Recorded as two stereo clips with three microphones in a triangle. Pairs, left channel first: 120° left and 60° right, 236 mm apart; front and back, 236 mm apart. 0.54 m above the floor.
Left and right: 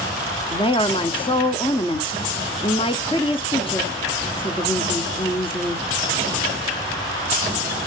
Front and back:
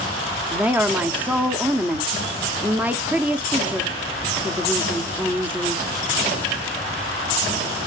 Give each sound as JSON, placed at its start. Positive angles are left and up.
{"t": 0.5, "sound": "a woman speaking", "azimuth_deg": 110, "distance_m": 0.7}